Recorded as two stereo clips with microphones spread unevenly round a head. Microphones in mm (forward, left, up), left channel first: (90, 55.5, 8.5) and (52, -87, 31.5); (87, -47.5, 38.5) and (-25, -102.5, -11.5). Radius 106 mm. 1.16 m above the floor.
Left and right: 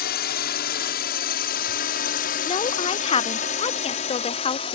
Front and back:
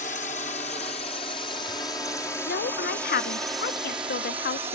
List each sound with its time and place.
0.0 s a drone: 85° left; by 4.8 s 135° left
2.5 s a woman speaking: 30° left